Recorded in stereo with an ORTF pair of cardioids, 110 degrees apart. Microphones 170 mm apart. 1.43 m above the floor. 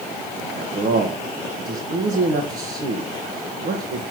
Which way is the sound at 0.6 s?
55° right.